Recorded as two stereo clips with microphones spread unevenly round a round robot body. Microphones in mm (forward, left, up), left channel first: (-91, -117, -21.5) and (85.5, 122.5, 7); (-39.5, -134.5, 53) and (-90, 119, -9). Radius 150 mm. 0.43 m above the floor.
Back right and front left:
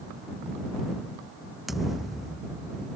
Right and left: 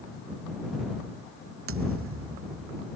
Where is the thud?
140° left.